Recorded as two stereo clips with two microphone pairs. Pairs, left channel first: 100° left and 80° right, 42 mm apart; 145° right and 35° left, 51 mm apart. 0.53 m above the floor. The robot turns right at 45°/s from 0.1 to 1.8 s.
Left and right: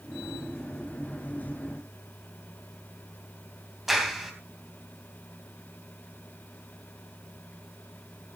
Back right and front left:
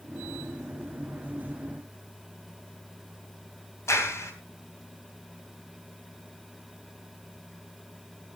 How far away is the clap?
About 3 m.